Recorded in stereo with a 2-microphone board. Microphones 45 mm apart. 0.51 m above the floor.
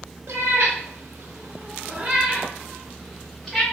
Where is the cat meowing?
75° right (ahead or behind), 0.9 m; by 3.6 s 5° left (ahead or behind), 1.4 m.